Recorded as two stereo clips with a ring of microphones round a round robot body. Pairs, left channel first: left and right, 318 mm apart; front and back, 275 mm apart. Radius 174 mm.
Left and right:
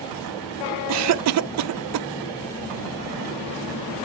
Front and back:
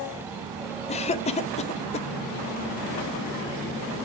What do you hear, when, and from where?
0.9 s a cough: 65° right, 0.5 m